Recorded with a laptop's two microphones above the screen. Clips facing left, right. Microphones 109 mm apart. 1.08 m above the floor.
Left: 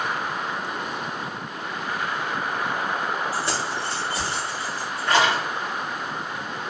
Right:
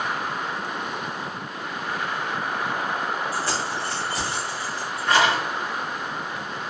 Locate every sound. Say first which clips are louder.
3.3 s keys jangling: even; 20° left (ahead or behind), 1.2 m; by 5.4 s 30° left (ahead or behind), 3 m